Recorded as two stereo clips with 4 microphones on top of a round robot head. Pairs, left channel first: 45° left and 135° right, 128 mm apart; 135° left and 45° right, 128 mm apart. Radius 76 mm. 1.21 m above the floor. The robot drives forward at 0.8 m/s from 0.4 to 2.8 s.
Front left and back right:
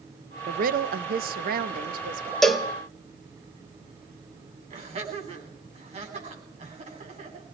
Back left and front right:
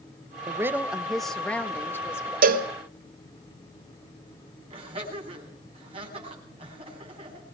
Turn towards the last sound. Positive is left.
turn(degrees=-95)